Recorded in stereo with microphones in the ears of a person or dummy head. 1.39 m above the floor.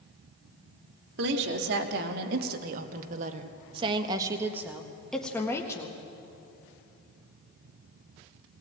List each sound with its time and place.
1.2 s a woman speaking: 70° right (ahead or behind), 2.5 m; by 6.0 s 20° left (ahead or behind), 1.7 m